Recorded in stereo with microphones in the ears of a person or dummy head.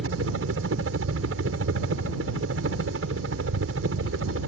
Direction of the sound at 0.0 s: 70° right (ahead or behind).